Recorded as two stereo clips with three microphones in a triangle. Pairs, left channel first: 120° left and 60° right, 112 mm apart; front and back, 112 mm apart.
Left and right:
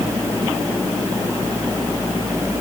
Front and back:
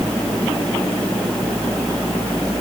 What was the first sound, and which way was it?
Only background noise.